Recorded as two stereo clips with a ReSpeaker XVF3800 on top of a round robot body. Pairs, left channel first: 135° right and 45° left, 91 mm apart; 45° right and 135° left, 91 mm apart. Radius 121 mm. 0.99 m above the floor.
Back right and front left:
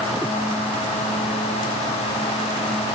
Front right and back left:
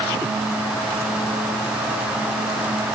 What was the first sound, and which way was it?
Only background noise.